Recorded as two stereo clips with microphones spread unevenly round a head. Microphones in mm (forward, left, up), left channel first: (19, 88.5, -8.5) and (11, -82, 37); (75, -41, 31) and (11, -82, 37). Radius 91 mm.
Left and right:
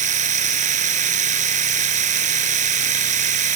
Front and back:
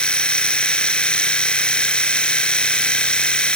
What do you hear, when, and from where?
0.0 s a machine running: 45° right